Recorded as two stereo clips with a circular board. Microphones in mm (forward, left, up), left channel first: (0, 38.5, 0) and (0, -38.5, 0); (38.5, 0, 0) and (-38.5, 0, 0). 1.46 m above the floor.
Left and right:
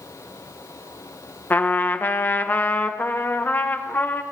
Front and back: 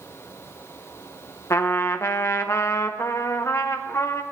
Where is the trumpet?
35° left, 0.6 m.